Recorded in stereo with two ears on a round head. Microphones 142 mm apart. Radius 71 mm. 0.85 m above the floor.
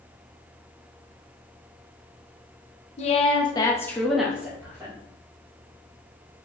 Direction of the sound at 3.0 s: 40° left (ahead or behind).